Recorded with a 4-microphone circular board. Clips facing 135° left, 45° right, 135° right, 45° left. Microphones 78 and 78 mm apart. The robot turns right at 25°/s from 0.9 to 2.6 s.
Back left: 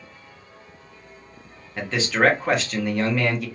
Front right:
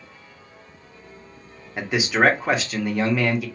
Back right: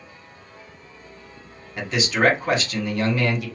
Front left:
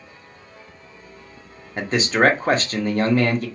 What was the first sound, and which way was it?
A man speaking, 20° left.